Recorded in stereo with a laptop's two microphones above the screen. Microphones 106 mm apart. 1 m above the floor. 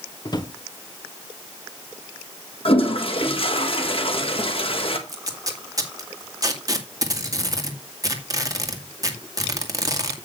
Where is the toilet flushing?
55° left (ahead or behind), 1.4 m.